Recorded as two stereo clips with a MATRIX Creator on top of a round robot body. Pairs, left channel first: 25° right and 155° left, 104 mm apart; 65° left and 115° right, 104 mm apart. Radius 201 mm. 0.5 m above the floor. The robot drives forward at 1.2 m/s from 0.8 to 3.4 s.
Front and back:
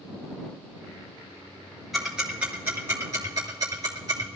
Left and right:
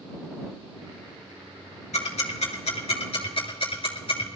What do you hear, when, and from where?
1.9 s ticking: 70° left, 3 m; by 4.3 s 100° left, 3 m